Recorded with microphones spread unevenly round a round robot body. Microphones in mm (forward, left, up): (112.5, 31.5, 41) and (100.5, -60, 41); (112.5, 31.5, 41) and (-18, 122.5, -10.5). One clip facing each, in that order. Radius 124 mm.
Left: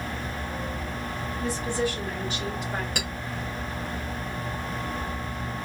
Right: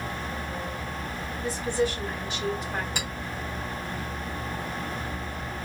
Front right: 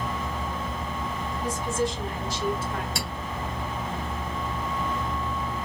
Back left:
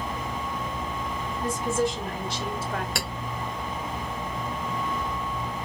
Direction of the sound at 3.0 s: 130° left.